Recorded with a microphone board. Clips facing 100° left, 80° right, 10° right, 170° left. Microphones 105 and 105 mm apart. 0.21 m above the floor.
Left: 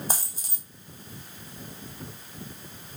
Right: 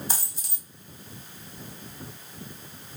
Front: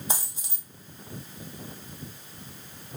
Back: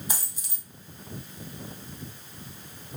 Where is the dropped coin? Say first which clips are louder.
Left 3 dB, front 3 dB; 50° left, 1.5 m.